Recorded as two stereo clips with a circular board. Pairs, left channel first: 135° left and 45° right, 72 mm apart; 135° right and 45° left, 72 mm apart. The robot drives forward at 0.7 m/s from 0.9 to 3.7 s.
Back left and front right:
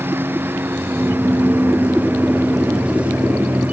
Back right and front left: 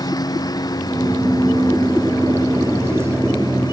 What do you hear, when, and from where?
0.0 s a lawn mower: 105° right; by 3.7 s 110° right